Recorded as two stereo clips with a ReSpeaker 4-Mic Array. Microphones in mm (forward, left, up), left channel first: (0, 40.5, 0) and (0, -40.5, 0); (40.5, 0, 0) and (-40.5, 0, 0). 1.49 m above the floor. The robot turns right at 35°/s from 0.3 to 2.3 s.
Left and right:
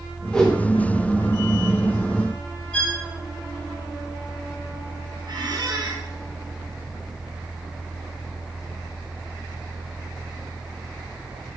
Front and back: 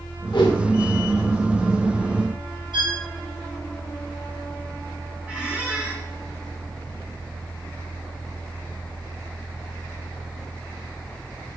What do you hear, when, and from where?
0.3 s a whoosh: 5° left, 2.0 m; by 0.6 s 15° left, 2.0 m
2.7 s a violin: 165° left, 2.5 m
5.3 s a squeak: 105° right, 2.5 m